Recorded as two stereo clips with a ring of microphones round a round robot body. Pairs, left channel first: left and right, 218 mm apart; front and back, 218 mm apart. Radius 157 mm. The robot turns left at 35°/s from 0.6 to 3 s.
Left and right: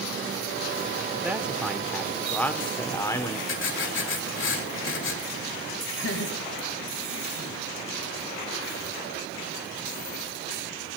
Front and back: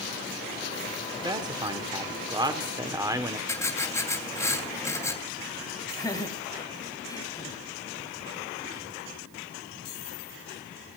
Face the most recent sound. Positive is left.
turn(degrees=75)